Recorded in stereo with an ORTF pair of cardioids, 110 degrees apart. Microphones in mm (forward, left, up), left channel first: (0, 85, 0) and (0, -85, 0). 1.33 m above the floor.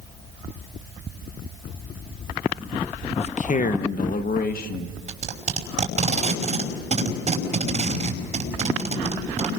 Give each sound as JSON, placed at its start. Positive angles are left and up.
{"t": 3.2, "sound": "a man speaking", "azimuth_deg": 40, "distance_m": 0.7}
{"t": 5.1, "sound": "tape being pulled", "azimuth_deg": -45, "distance_m": 5.5}